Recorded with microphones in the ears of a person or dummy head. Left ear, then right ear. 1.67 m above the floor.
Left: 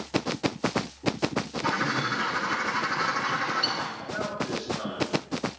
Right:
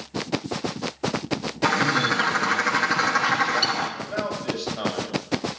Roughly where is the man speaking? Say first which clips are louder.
Right 3 dB; right.